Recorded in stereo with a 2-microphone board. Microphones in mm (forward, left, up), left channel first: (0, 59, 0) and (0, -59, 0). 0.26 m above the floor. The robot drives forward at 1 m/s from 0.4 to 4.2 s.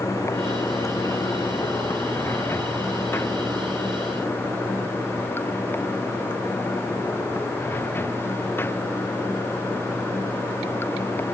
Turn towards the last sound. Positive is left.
turn(degrees=20)  # may be behind; listen again after turning